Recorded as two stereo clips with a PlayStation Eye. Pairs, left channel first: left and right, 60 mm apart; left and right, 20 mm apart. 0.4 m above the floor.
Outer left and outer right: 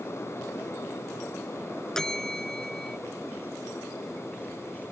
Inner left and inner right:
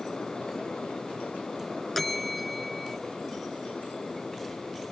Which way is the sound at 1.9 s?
10° left (ahead or behind).